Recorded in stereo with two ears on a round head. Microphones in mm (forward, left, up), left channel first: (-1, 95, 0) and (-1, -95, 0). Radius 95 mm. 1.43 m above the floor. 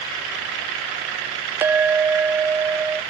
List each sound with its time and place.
1.6 s a clink: 10° right (ahead or behind)